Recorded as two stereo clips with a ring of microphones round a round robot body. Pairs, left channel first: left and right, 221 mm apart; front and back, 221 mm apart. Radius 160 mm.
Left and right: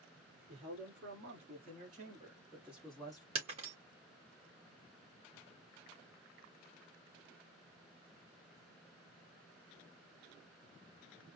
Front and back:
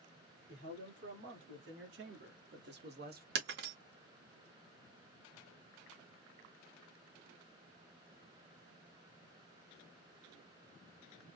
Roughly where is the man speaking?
Behind right.